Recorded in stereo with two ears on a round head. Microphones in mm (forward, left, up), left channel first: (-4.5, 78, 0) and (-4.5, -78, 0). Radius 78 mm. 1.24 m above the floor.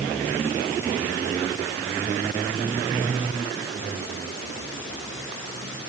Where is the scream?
No scream in this recording.